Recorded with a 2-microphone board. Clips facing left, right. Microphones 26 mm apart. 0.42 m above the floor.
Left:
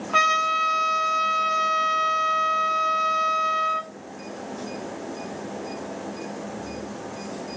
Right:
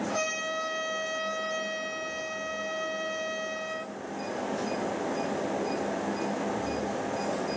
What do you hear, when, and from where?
0.1 s a trumpet: 70° left (ahead or behind), 0.6 m